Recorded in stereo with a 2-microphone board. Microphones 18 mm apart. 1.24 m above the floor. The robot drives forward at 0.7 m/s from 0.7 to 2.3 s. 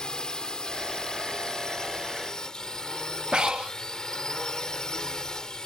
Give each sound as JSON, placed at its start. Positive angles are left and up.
{"t": 0.0, "sound": "a drone", "side_deg": 55}
{"t": 3.3, "sound": "breathing", "side_deg": -55}